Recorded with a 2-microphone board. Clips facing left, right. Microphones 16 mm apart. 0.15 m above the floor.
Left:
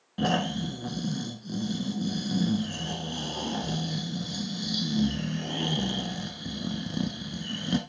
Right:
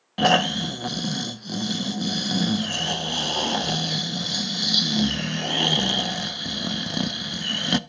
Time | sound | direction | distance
0.2 | snoring | 45° right (ahead or behind) | 0.6 m